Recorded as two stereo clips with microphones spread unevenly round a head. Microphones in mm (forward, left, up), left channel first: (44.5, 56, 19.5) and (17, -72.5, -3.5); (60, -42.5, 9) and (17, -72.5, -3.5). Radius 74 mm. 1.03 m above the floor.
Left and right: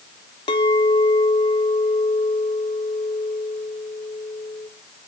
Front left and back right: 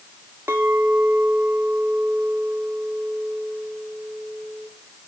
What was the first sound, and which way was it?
A clink, 140° left.